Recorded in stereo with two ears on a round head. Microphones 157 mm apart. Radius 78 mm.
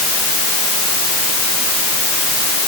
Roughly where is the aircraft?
No aircraft in this recording.